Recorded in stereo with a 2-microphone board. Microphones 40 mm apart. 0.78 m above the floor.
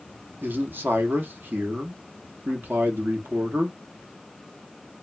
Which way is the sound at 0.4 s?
60° right (ahead or behind).